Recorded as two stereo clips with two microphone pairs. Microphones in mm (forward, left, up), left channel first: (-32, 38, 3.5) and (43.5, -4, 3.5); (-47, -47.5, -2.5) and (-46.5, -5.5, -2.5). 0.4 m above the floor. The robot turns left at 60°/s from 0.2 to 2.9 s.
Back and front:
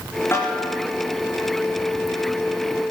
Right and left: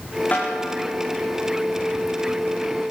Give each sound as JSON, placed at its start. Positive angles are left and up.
{"t": 0.3, "sound": "a snare drum", "azimuth_deg": -145, "distance_m": 5.5}